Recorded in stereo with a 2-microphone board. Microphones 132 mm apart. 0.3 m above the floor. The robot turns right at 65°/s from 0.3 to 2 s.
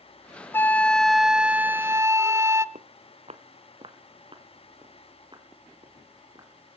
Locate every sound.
0.5 s a flute: 15° left (ahead or behind), 0.5 m; by 2.6 s 20° right (ahead or behind), 0.5 m
2.8 s footsteps: 70° right (ahead or behind), 1.0 m; by 6.5 s 30° right (ahead or behind), 4.5 m